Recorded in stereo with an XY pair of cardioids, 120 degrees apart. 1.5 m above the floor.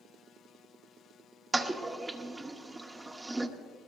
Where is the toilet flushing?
15° right, 0.9 m.